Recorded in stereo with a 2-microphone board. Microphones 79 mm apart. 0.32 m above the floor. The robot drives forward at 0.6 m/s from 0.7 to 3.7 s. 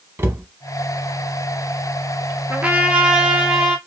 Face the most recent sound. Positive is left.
turn(degrees=-10)  # may be behind; listen again after turning